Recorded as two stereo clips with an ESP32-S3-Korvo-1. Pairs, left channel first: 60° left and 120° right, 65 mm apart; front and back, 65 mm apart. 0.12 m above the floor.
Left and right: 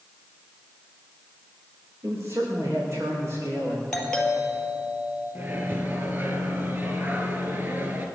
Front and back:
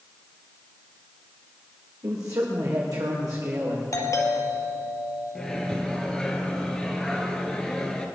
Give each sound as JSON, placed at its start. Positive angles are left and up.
{"t": 2.0, "sound": "a man speaking", "azimuth_deg": -160, "distance_m": 7.0}
{"t": 3.9, "sound": "a doorbell", "azimuth_deg": -15, "distance_m": 4.0}
{"t": 5.3, "sound": "a microwave", "azimuth_deg": -75, "distance_m": 1.8}